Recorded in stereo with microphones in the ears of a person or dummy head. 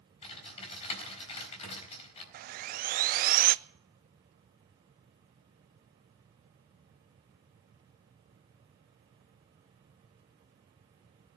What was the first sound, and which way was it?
Typing on a keyboard, 30° left (ahead or behind).